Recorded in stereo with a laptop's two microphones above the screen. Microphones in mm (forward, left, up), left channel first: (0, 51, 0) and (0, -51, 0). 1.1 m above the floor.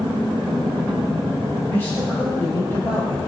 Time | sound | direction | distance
1.7 | a man speaking | 25° left (ahead or behind) | 5 m